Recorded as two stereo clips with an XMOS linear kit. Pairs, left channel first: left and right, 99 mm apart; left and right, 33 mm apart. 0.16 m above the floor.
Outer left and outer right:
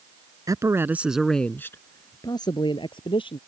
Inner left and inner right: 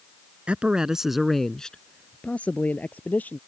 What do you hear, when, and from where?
0.5 s a man speaking: 40° right (ahead or behind); by 3.4 s 60° left (ahead or behind)